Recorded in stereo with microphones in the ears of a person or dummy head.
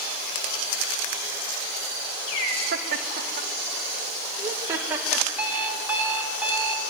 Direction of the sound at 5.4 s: 10° right (ahead or behind).